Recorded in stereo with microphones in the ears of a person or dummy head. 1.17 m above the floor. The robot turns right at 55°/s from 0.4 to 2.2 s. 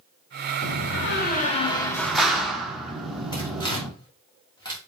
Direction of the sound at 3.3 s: 15° left (ahead or behind).